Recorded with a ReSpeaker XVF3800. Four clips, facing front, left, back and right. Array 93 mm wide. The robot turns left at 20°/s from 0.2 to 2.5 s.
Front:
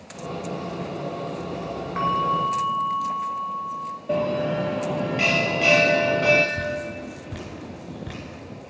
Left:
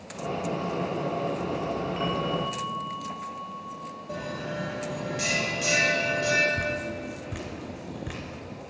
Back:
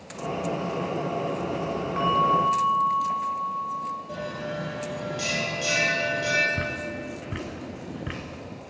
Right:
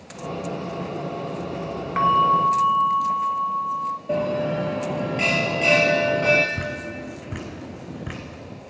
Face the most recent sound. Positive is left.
turn(degrees=-140)